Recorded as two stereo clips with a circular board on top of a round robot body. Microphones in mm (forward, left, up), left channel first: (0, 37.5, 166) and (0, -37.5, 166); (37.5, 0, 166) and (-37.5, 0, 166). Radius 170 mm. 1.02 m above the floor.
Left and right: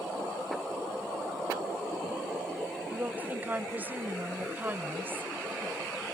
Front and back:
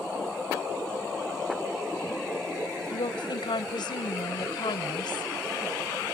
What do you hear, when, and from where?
2.9 s a woman speaking: 20° right; by 5.3 s 25° right